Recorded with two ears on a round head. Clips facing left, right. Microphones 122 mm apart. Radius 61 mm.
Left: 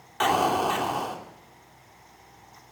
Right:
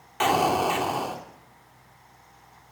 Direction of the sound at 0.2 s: 10° right (ahead or behind).